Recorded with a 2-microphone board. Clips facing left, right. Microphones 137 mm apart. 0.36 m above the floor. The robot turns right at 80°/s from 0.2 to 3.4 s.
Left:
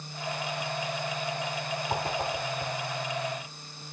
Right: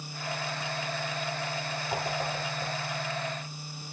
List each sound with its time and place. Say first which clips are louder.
1.9 s a whoosh: left 1 dB; 60° left (ahead or behind), 2.5 m; by 2.7 s 50° left (ahead or behind), 2.5 m